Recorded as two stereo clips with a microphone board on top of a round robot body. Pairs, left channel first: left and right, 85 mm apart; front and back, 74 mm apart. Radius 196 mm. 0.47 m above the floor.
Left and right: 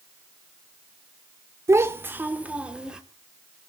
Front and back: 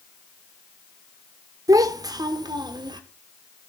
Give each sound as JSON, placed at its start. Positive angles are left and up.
{"t": 1.7, "sound": "a child speaking", "azimuth_deg": -145, "distance_m": 1.4}